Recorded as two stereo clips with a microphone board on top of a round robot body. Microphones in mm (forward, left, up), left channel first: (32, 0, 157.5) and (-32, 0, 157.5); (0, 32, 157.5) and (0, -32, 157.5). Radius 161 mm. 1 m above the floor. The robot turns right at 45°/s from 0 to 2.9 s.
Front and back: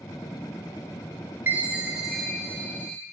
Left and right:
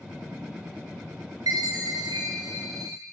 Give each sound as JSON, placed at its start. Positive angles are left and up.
{"t": 1.5, "sound": "a chime", "azimuth_deg": -120, "distance_m": 0.9}